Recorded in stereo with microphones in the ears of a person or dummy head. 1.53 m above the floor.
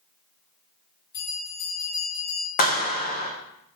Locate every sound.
1.1 s a bell: 55° left (ahead or behind), 1.7 m
2.6 s a clap: 40° left (ahead or behind), 0.6 m